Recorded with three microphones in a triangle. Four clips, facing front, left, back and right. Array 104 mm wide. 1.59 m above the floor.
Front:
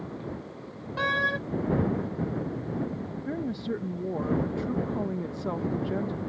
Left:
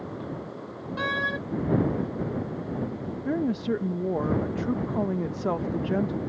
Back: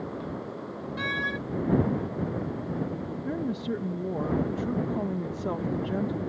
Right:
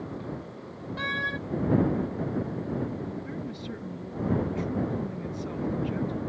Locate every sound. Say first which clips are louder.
1.0 s a door slam: left 4 dB, front 5 dB; 30° left
3.2 s a woman speaking: left 10 dB, back 1 dB; 85° left